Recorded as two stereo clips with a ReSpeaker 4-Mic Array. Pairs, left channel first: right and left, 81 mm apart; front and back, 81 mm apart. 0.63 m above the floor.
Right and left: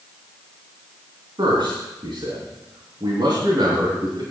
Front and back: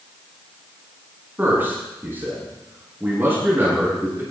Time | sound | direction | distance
1.4 | a man speaking | 115° left | 6 m